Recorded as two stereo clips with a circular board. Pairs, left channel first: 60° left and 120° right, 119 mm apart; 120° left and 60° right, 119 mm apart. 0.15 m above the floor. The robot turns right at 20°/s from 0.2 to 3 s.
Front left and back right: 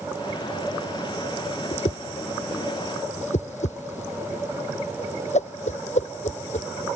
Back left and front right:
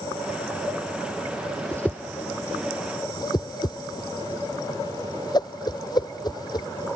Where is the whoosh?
40° left; by 6.7 s 65° left.